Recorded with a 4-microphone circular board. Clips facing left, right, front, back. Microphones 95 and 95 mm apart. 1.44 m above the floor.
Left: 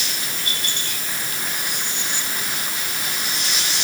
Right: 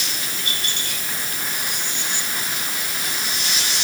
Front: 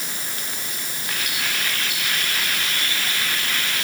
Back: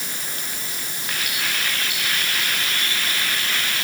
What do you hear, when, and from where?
Only background noise.